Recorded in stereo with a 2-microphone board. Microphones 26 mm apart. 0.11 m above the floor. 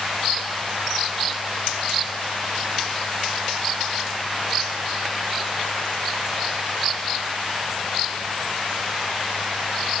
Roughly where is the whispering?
No whispering in this recording.